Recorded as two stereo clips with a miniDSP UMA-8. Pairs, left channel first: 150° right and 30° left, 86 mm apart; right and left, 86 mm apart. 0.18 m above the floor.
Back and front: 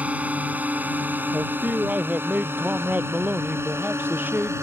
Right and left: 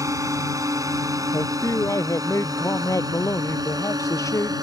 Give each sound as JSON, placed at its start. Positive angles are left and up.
{"t": 0.0, "sound": "a drone", "azimuth_deg": 90}
{"t": 1.3, "sound": "a man speaking", "azimuth_deg": -40}